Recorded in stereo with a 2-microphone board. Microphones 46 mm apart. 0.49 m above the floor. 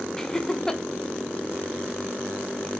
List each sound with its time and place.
0.2 s laughter: 15° left (ahead or behind), 1.4 m